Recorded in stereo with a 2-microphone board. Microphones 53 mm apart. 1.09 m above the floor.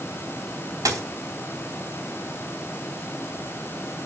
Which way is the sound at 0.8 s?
85° right.